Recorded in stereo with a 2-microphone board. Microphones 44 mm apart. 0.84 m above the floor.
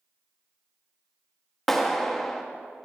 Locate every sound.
1.7 s a clap: 5° left (ahead or behind), 0.9 m